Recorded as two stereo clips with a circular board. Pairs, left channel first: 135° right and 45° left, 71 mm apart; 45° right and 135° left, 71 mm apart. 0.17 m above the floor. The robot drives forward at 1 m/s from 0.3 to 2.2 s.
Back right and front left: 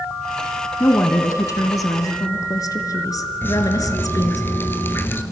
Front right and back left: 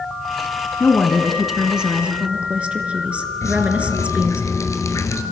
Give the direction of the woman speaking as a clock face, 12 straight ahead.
3 o'clock.